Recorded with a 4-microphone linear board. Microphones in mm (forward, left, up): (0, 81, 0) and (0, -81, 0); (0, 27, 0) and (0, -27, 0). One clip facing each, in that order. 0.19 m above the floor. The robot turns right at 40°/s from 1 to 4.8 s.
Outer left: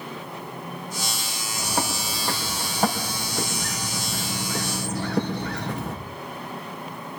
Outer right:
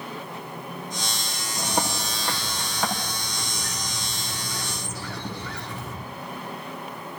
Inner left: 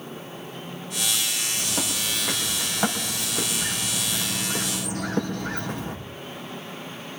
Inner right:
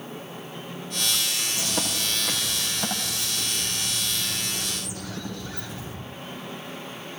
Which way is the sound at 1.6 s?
15° right.